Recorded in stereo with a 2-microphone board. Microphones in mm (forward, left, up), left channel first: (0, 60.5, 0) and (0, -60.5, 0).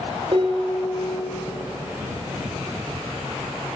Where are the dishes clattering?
45° right (ahead or behind), 1.5 m.